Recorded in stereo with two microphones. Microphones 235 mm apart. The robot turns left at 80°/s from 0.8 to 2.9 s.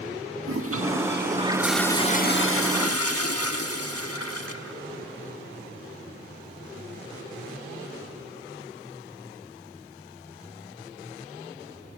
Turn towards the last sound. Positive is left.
turn(degrees=85)